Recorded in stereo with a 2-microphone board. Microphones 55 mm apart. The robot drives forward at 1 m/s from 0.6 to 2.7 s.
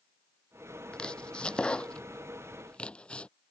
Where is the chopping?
15° left (ahead or behind); by 3.3 s 20° left (ahead or behind).